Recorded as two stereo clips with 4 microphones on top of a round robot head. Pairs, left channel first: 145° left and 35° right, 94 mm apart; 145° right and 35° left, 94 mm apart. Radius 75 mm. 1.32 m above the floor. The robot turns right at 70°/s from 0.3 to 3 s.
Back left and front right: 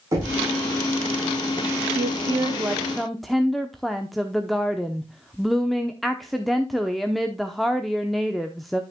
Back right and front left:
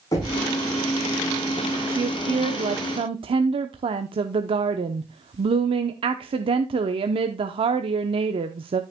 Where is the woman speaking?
20° right, 0.8 m; by 8.8 s 55° left, 0.8 m.